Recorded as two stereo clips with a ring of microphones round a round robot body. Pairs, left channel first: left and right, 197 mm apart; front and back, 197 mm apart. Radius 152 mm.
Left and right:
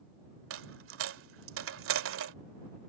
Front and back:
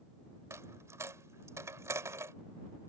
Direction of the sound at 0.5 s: 100° right.